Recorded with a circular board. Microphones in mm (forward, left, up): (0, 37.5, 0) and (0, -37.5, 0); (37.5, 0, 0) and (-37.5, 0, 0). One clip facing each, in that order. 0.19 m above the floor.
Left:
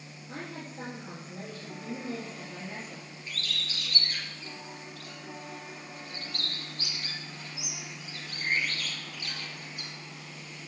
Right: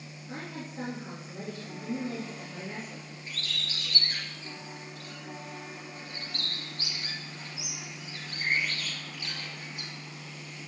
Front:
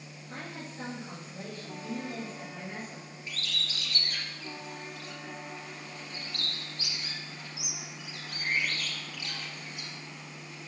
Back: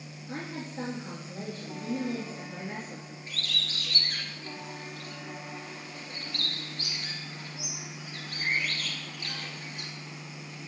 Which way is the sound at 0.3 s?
130° right.